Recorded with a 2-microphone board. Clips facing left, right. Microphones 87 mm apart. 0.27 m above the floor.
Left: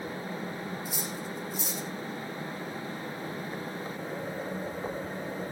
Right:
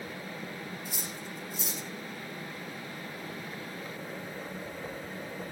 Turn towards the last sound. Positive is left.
turn(degrees=5)  # may be behind; listen again after turning